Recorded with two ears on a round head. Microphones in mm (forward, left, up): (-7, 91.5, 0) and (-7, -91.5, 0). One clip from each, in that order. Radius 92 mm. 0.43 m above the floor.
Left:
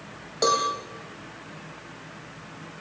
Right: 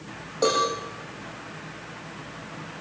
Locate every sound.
0.4 s a cowbell: 40° left (ahead or behind), 9 m